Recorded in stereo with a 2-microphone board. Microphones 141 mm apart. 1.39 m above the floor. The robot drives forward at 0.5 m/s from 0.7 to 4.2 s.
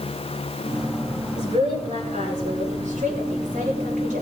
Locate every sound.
1.4 s a woman speaking: 60° right (ahead or behind), 6.5 m; by 4.2 s 70° right (ahead or behind), 6 m